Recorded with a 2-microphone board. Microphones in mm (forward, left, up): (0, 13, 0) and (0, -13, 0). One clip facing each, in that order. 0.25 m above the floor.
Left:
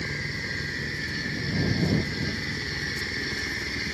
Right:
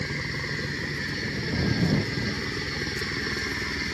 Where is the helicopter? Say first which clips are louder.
Even; 45° right (ahead or behind).